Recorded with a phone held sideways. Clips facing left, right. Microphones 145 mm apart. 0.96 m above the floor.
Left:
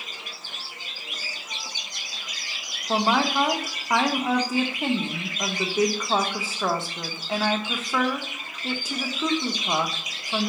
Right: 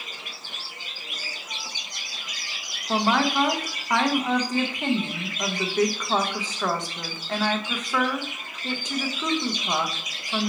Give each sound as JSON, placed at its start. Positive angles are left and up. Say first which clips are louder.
{"t": 2.9, "sound": "a woman speaking", "louder": "even", "side_deg": 5, "distance_m": 0.7}